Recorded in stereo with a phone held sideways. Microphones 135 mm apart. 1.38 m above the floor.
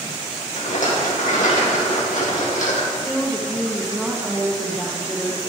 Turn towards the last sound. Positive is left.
turn(degrees=0)  # may be behind; listen again after turning